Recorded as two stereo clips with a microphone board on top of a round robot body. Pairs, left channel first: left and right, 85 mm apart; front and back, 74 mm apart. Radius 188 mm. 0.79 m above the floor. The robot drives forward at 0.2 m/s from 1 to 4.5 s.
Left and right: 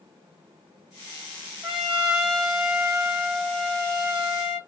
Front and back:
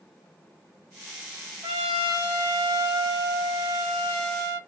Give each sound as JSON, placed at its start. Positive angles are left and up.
{"t": 1.6, "sound": "a trumpet", "azimuth_deg": -175, "distance_m": 0.8}